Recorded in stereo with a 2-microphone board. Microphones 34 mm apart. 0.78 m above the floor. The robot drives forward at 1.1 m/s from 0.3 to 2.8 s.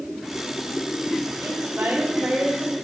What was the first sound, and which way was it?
A woman speaking, 55° right (ahead or behind).